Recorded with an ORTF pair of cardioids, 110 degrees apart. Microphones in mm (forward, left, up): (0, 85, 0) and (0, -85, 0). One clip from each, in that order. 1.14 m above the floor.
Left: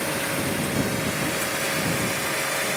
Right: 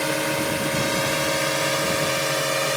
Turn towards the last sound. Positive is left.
turn(degrees=-70)